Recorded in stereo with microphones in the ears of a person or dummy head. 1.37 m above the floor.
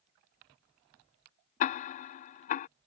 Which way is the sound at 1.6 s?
40° left (ahead or behind).